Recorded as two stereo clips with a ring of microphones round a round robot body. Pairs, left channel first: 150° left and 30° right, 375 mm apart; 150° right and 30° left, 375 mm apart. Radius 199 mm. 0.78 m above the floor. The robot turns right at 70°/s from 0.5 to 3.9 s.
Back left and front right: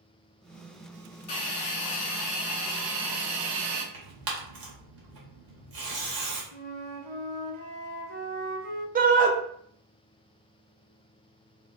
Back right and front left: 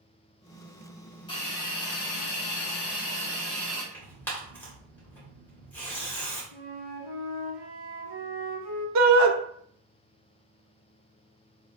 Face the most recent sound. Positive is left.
turn(degrees=30)